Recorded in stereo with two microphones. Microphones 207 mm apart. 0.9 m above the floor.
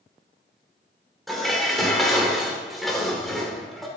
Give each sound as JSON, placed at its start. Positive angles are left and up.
{"t": 1.3, "sound": "dishes clattering", "side_deg": 0, "distance_m": 1.9}